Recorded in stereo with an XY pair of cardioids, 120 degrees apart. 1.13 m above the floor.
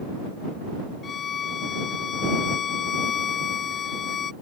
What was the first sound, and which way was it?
A violin, 45° left.